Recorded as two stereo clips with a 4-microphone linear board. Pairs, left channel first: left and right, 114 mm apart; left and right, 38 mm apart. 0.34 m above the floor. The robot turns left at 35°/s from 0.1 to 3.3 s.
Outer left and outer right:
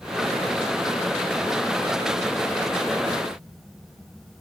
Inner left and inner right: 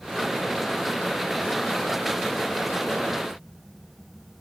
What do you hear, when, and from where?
Only background noise.